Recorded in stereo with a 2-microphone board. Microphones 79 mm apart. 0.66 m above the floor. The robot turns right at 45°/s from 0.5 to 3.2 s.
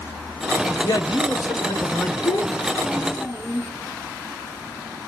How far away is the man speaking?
About 2.5 m.